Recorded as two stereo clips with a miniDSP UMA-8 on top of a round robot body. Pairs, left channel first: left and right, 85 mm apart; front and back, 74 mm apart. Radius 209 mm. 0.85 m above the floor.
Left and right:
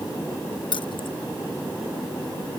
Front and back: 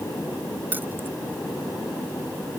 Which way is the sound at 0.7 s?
115° left.